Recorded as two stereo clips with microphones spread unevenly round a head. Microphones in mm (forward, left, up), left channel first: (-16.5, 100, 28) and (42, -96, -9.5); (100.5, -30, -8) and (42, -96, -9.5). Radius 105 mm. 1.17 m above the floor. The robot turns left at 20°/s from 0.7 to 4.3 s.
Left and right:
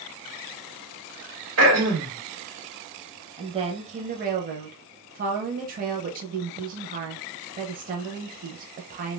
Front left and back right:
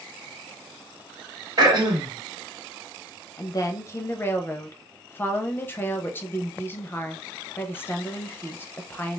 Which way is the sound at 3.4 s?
5° right.